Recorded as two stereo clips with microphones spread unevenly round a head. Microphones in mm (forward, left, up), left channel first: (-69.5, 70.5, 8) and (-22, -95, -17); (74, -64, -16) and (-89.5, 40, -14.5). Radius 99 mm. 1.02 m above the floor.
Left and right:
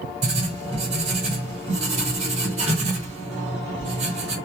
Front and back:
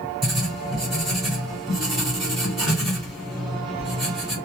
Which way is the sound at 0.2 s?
125° right.